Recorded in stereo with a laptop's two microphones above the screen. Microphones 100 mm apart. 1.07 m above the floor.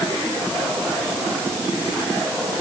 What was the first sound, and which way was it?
Only background noise.